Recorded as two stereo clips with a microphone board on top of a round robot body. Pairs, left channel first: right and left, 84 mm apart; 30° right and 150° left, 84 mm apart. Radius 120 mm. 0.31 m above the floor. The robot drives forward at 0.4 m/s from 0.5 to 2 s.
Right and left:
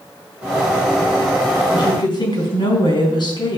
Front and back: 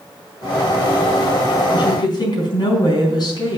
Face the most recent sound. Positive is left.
turn(degrees=-65)